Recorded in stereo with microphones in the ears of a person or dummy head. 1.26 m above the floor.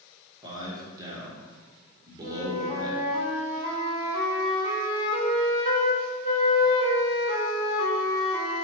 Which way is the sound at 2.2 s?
30° left (ahead or behind).